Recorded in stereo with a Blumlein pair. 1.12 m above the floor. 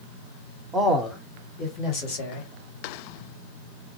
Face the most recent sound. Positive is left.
turn(degrees=45)